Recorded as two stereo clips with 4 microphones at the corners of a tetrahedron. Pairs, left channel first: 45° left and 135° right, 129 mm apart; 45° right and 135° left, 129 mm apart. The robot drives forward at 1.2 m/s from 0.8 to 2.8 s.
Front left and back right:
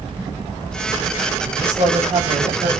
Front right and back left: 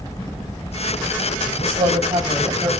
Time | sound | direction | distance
1.6 | a woman speaking | straight behind | 8 m